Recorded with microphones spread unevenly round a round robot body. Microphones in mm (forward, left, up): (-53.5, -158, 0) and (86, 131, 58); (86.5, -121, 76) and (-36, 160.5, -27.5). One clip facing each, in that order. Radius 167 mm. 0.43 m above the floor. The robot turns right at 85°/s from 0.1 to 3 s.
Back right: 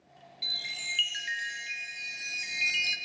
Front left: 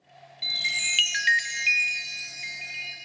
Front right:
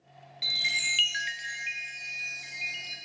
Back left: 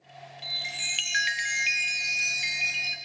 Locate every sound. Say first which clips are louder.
0.4 s a chime: front left 6 dB, back left 2 dB; 15° right, 0.7 m; by 3.0 s 160° right, 0.7 m